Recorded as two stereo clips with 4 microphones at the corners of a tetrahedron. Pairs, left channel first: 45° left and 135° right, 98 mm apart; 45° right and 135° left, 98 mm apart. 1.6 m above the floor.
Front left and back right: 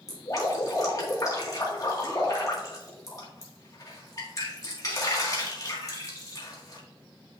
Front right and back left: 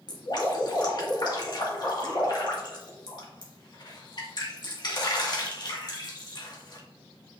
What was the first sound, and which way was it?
Dripping, 5° right.